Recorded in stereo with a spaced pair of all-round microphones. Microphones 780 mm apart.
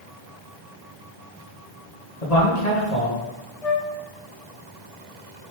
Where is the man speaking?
55° left (ahead or behind), 1.4 m.